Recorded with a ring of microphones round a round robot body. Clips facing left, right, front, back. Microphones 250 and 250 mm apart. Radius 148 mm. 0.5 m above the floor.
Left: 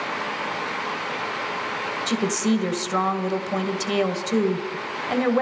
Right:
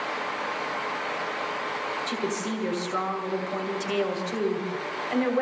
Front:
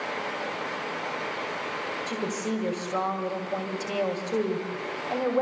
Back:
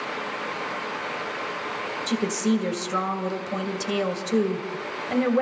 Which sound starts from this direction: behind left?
A woman speaking, at 2.1 s.